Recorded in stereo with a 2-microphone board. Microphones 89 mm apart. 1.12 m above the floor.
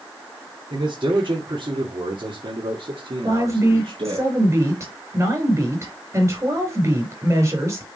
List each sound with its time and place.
0.7 s a man speaking: 60° right (ahead or behind), 2.5 m; by 4.2 s 75° right (ahead or behind), 1.7 m
3.2 s a woman speaking: 30° right (ahead or behind), 4 m